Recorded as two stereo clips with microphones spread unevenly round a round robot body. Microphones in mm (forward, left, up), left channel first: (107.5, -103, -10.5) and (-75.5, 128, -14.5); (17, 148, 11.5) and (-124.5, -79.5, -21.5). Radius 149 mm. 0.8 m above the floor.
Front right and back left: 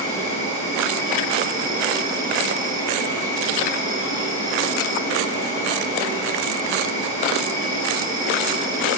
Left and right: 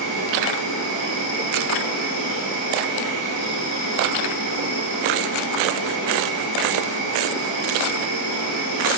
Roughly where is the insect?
Ahead left.